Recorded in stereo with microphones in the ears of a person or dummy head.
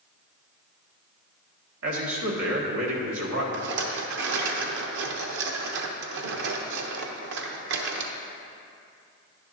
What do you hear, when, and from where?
1.8 s a man speaking: 80° right, 1.8 m
3.5 s a rattle: 65° right (ahead or behind), 1.0 m